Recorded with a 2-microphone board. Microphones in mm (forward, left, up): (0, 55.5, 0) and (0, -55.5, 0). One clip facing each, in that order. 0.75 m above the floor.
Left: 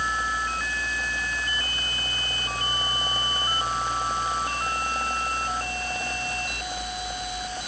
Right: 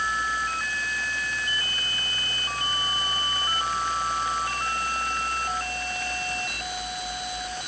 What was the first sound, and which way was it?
Only background noise.